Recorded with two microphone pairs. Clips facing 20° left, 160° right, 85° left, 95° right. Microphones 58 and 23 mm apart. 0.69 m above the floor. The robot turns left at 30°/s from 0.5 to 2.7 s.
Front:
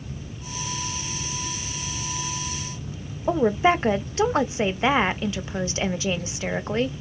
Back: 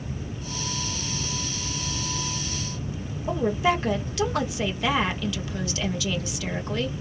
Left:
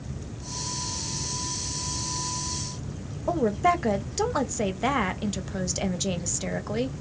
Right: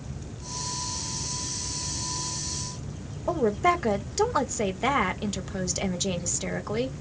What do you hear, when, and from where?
3.3 s a woman speaking: straight ahead, 0.5 m